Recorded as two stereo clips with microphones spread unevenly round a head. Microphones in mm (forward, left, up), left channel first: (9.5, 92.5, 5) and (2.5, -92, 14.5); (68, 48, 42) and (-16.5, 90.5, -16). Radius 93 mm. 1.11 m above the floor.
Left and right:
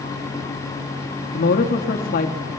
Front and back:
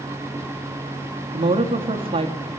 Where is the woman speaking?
135° left, 1.8 m.